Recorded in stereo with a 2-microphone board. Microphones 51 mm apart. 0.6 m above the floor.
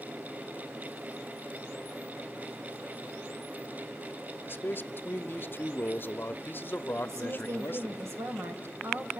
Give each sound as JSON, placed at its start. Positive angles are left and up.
{"t": 4.5, "sound": "a man speaking", "side_deg": 45, "distance_m": 0.9}
{"t": 7.0, "sound": "a woman speaking", "side_deg": -70, "distance_m": 2.5}